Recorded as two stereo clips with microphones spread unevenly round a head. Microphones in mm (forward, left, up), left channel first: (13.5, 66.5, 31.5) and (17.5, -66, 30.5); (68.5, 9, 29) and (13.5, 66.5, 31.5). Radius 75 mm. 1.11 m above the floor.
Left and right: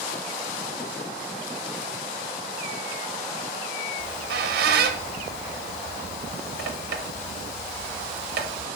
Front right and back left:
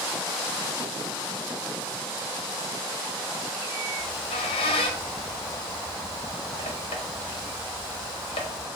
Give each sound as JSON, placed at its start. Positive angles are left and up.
{"t": 4.0, "sound": "a squeak", "azimuth_deg": -80, "distance_m": 0.6}